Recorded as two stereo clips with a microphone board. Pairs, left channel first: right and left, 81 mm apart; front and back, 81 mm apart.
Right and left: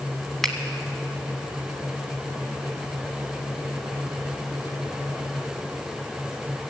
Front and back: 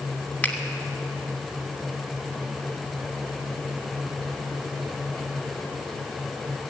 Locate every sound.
0.4 s a finger snap: 10° right, 1.4 m